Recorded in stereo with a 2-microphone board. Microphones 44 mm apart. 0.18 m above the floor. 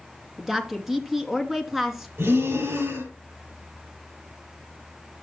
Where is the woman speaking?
5° right (ahead or behind), 2 m.